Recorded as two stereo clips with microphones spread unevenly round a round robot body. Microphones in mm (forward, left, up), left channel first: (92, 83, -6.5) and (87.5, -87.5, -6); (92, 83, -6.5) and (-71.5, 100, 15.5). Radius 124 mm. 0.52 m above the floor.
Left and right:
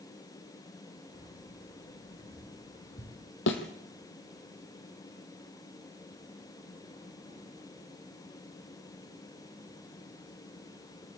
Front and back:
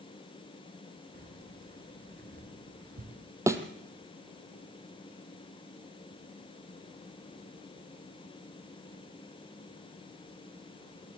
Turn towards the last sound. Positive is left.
turn(degrees=105)